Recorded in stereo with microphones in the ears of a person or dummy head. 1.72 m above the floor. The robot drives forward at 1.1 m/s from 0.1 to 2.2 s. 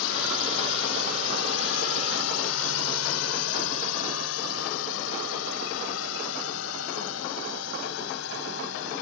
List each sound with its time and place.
0.0 s a drone: 75° left (ahead or behind); by 9.0 s 70° left (ahead or behind)